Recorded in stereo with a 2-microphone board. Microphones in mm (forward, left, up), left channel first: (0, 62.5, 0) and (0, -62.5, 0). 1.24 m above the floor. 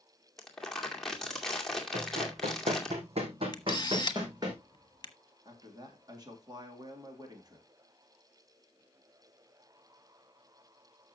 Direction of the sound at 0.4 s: 5° left (ahead or behind).